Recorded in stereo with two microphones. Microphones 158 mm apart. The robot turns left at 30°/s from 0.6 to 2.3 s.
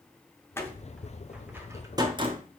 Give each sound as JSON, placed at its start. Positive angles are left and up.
{"t": 0.6, "sound": "a door slam", "side_deg": 15, "distance_m": 1.0}